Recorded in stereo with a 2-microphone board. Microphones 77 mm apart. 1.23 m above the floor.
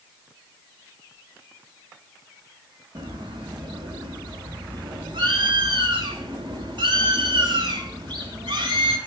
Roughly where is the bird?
Right.